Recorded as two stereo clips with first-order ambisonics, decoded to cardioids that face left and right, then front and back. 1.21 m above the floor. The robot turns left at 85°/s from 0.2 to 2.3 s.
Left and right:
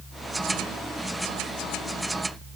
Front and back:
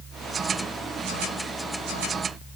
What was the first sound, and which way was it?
Only background noise.